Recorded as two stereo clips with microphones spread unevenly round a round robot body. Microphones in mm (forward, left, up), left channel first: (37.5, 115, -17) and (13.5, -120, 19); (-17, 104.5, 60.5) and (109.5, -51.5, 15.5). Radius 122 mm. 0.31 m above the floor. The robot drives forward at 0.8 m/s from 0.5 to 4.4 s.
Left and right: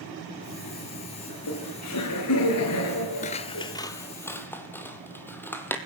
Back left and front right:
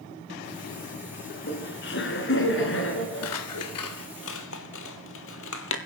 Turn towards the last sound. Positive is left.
turn(degrees=165)